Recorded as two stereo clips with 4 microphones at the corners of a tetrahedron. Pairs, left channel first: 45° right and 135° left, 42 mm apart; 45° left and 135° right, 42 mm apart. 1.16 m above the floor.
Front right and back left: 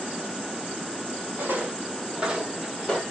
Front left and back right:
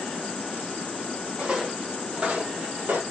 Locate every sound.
1.4 s footsteps: 160° left, 1.9 m; by 3.0 s 125° right, 1.6 m